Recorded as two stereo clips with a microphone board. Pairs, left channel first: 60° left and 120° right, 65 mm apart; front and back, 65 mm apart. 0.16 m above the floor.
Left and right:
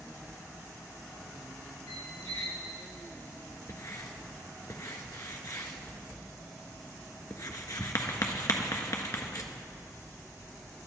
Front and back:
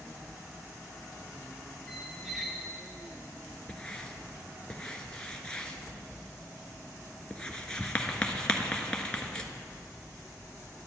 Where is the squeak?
90° left, 1.4 m.